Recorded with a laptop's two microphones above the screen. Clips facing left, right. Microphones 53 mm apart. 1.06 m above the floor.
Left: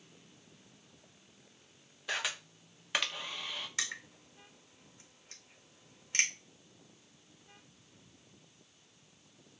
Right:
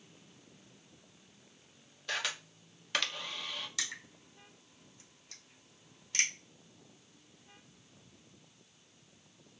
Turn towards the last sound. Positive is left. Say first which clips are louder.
# left 2 dB
turn(degrees=35)  # may be behind; listen again after turning